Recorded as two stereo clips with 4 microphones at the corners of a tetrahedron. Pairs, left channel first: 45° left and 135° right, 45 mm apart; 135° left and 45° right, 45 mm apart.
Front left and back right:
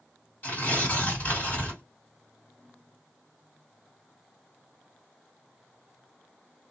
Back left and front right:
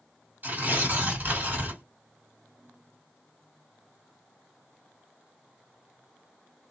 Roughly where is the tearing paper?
Ahead.